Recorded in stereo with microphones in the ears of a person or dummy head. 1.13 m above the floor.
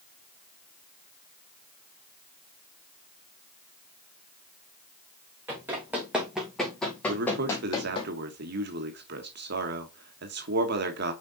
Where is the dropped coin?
I don't hear a dropped coin.